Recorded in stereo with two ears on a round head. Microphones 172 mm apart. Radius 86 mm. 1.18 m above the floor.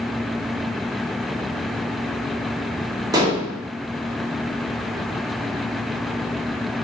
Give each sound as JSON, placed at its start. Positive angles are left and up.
{"t": 3.1, "sound": "dishes clattering", "side_deg": -20, "distance_m": 0.9}